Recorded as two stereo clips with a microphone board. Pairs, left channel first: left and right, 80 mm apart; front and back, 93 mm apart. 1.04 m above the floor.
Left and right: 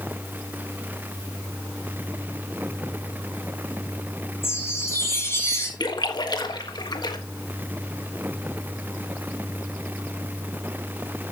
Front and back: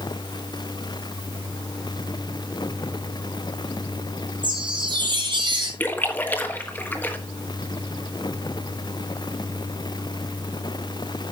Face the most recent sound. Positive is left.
turn(degrees=70)